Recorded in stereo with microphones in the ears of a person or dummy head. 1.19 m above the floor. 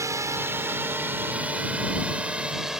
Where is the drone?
15° right (ahead or behind); by 2.8 s 5° right (ahead or behind).